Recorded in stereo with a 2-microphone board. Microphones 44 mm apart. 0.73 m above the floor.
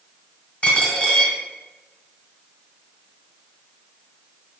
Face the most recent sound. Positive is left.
turn(degrees=30)  # may be behind; listen again after turning